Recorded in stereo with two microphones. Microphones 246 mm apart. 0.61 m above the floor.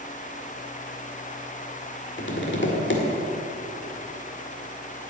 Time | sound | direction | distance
2.2 | tapping | 55° left (ahead or behind) | 1.8 m